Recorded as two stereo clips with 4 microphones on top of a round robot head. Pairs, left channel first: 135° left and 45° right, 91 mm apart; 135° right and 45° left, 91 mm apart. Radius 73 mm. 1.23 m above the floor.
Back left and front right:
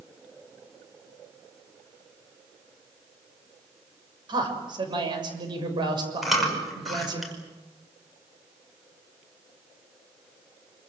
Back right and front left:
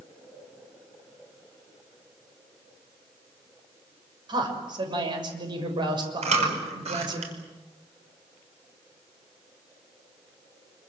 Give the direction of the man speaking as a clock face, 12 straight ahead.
12 o'clock.